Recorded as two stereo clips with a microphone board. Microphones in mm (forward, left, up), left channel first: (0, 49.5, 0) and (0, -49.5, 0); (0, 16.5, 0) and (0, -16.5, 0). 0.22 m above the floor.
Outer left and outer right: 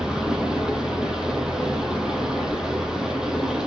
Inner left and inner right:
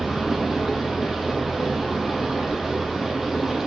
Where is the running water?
10° right (ahead or behind), 1.7 m.